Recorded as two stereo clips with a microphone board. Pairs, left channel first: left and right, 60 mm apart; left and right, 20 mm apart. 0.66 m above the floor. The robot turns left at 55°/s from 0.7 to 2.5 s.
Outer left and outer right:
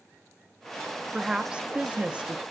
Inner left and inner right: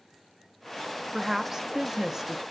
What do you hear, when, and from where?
1.1 s a woman speaking: 10° right (ahead or behind), 0.7 m; by 2.4 s 20° right (ahead or behind), 0.7 m